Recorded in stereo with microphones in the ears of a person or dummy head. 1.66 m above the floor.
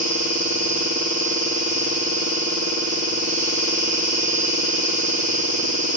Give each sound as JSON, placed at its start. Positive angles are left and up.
{"t": 0.0, "sound": "an insect", "side_deg": -25, "distance_m": 1.1}